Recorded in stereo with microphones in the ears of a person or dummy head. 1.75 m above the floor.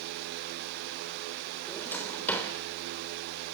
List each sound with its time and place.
1.7 s a drawer: 10° left (ahead or behind), 3 m